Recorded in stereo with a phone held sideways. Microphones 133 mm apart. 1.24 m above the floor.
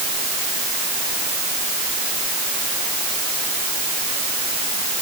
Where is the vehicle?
I don't hear a vehicle.